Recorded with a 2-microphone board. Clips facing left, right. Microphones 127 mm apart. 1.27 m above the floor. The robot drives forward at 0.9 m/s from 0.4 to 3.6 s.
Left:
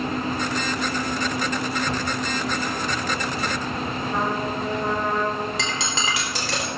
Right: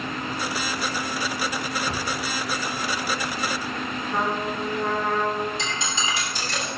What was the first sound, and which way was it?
A drawer, 35° left (ahead or behind).